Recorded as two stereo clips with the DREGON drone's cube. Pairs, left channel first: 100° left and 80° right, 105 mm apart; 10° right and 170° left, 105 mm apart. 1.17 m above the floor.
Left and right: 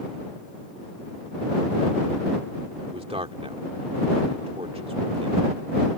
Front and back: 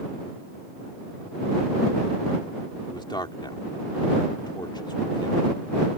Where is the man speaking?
55° right.